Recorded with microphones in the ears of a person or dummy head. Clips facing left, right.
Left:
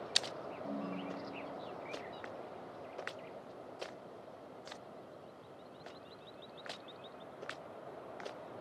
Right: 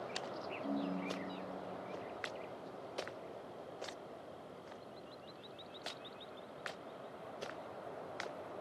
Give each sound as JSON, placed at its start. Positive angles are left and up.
{"t": 0.6, "sound": "a ringtone", "side_deg": -15, "distance_m": 1.3}